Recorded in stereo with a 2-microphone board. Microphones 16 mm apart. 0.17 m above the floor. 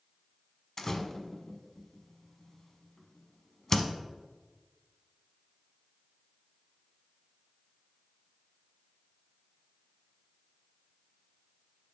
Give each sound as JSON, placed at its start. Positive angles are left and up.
{"t": 0.8, "sound": "a door slam", "side_deg": 25, "distance_m": 0.7}